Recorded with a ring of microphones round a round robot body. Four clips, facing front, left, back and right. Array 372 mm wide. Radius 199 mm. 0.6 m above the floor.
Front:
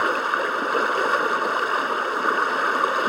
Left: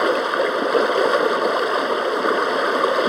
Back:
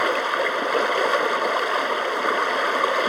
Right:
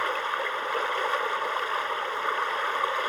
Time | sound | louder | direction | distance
0.0 | running water | left 10 dB, even | 75° left | ?